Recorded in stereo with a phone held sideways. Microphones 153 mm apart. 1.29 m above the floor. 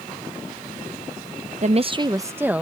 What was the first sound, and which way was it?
A woman speaking, 50° right (ahead or behind).